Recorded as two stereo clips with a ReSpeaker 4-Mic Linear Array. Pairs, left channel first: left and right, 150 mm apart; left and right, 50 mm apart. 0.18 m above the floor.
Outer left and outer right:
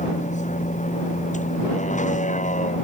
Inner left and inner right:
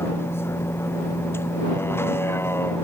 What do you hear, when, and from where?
0.0 s a vehicle: 50° left (ahead or behind)